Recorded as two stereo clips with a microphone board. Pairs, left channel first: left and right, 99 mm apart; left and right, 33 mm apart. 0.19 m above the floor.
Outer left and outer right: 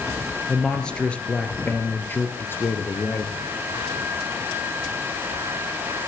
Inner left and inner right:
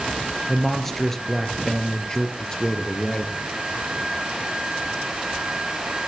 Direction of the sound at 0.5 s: 5° left (ahead or behind).